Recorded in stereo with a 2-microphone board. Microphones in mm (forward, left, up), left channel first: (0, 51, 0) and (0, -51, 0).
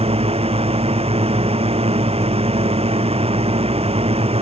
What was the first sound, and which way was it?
A drone, 75° right (ahead or behind).